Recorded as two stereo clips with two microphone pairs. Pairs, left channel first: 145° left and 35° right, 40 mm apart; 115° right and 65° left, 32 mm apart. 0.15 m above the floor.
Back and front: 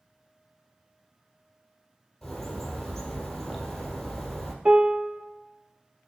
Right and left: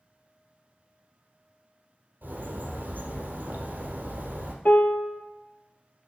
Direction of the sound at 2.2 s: 65° left.